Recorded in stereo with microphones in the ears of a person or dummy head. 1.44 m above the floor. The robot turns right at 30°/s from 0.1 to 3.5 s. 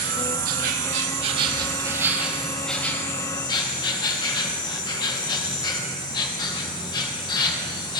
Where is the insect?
75° right, 1.4 m; by 8.0 s 30° left, 1.4 m.